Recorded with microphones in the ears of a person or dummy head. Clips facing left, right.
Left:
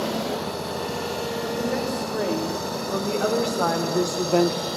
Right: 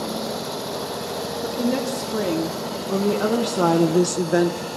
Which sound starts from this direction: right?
A woman speaking, at 1.4 s.